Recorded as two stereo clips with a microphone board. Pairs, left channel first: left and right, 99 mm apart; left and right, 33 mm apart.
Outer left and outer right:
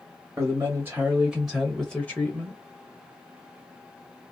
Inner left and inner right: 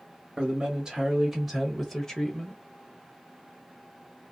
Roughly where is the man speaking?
Right.